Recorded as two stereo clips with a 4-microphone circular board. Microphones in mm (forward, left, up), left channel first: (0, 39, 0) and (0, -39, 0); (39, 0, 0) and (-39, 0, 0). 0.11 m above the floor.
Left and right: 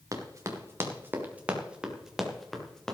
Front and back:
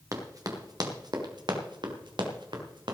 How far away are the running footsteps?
About 3 m.